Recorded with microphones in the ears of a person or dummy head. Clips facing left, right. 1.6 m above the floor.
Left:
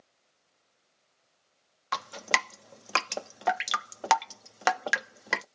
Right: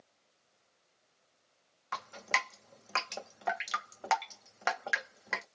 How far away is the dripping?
About 0.6 m.